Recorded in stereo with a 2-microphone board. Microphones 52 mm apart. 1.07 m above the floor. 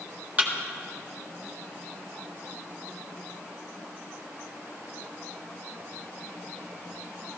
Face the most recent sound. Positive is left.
turn(degrees=-35)  # may be behind; listen again after turning